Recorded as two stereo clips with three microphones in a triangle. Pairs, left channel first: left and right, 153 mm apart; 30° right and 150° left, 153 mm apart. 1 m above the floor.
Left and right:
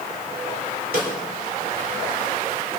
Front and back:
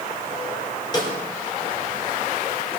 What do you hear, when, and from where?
0.9 s a snare drum: 90° right, 3.5 m